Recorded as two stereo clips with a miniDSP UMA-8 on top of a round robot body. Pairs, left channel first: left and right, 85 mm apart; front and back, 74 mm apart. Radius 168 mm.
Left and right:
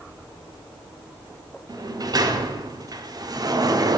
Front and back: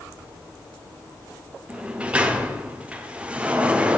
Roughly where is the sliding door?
Right.